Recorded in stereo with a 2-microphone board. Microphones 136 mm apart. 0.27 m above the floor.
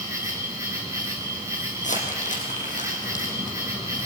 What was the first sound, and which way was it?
An insect, 20° right (ahead or behind).